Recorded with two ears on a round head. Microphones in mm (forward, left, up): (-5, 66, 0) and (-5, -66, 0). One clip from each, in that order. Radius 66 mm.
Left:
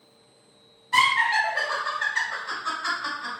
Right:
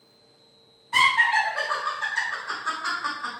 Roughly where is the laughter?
Left.